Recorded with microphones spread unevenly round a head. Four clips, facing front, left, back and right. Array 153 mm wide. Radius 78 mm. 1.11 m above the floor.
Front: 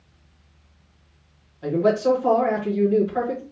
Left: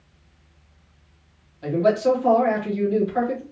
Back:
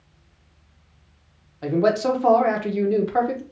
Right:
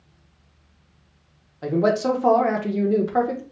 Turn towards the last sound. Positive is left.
turn(degrees=-130)